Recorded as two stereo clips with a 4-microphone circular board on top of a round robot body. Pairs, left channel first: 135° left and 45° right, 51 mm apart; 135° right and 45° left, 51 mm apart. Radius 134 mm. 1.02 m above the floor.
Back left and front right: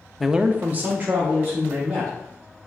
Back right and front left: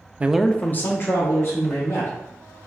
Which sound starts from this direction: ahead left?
A man speaking, at 0.2 s.